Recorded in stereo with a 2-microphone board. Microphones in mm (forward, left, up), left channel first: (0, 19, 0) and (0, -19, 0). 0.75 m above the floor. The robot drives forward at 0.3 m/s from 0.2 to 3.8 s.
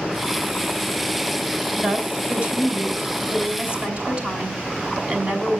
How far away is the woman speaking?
About 5 m.